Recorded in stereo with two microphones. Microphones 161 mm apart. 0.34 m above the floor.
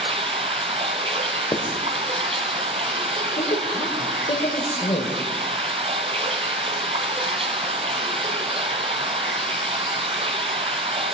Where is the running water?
35° right (ahead or behind), 0.8 m.